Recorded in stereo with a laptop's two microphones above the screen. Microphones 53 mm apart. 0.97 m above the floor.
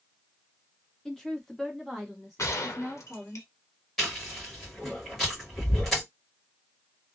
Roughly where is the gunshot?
Left.